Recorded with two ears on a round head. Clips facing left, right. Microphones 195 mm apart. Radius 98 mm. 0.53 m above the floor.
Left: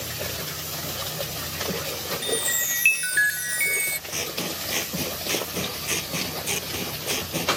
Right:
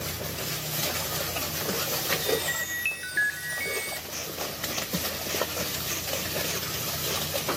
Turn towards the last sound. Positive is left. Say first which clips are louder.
# left 7 dB
turn(degrees=85)